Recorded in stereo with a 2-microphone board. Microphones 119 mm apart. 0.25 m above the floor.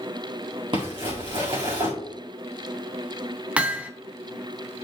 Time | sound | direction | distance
0.7 | crumpling | 40° right (ahead or behind) | 3.5 m
3.6 | hammering | 10° right (ahead or behind) | 0.8 m